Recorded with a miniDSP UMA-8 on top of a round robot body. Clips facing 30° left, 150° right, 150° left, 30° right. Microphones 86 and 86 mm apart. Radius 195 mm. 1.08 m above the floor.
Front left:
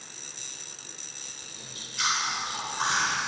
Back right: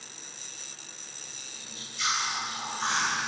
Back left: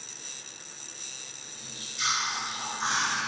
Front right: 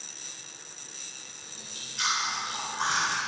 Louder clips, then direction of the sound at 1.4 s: Front left 1 dB, back left 1 dB; straight ahead.